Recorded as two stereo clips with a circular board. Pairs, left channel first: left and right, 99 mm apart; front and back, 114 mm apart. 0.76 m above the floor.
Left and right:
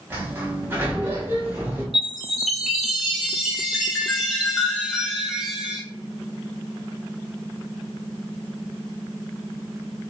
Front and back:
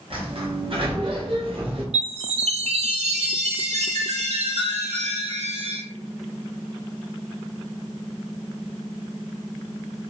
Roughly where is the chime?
Behind.